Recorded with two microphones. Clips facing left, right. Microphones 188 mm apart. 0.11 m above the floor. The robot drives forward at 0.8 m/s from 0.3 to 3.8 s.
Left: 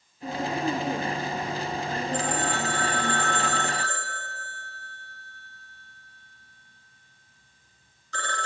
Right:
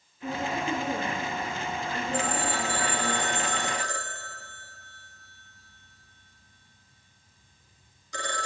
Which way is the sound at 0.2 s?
30° left (ahead or behind).